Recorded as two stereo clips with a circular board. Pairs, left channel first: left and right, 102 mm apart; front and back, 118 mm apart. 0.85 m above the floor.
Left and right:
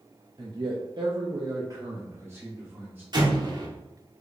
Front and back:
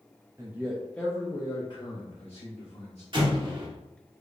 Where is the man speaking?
120° right, 0.8 m; by 3.0 s 20° right, 1.9 m.